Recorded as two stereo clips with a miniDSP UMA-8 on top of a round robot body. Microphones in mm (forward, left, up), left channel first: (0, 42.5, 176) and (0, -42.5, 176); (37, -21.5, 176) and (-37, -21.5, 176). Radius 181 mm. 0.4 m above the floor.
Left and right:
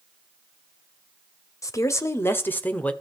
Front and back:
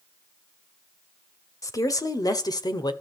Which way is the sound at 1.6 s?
40° left.